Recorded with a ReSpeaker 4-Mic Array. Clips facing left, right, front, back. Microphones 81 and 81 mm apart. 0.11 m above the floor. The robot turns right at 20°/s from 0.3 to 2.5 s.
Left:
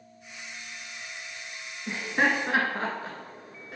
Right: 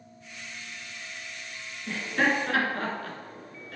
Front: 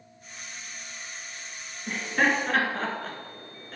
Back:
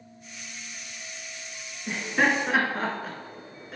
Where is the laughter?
105° left, 1.7 m; by 3.8 s 115° left, 1.7 m.